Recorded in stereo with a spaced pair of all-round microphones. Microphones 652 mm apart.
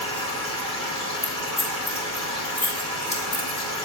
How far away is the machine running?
About 2.0 m.